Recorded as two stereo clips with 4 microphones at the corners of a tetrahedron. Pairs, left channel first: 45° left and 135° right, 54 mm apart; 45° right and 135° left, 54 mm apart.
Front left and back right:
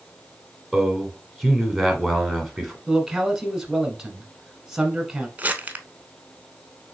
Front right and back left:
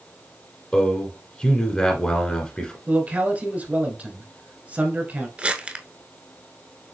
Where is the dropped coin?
No dropped coin in this recording.